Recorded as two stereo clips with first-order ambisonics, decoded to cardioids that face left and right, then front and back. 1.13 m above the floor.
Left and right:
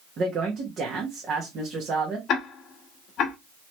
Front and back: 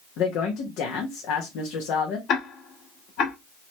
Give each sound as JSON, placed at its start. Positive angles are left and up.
{"t": 0.2, "sound": "a woman speaking", "azimuth_deg": -30, "distance_m": 1.1}
{"t": 2.3, "sound": "ticking", "azimuth_deg": 40, "distance_m": 1.2}